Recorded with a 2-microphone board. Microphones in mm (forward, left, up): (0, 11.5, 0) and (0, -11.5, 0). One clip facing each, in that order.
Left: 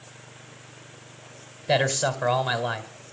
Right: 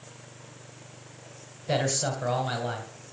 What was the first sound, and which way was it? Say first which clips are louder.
A man speaking: left 4 dB; 25° left (ahead or behind).